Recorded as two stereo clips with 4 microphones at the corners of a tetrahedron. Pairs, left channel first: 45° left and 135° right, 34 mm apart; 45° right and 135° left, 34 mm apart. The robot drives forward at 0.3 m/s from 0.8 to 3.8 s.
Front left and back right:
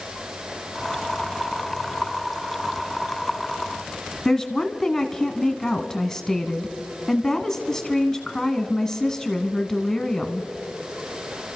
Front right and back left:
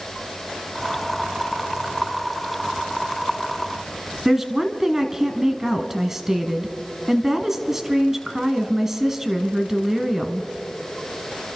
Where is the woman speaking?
95° left, 1.3 m.